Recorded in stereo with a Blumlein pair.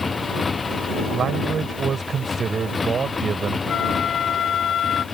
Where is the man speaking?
20° right.